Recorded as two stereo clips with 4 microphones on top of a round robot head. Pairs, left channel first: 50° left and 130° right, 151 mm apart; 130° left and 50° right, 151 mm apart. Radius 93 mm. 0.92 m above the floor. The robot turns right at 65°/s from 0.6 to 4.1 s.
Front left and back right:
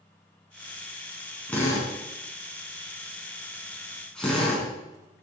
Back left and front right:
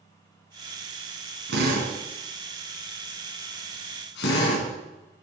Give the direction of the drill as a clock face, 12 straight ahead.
1 o'clock.